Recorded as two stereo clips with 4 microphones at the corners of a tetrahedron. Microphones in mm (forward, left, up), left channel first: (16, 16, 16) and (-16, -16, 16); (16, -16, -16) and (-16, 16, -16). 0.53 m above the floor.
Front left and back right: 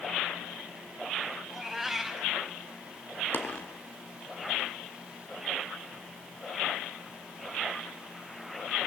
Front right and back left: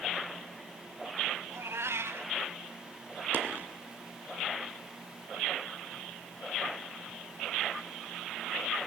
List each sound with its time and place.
1.5 s a cat meowing: 140° left, 2 m
3.3 s a dropped coin: 90° left, 2 m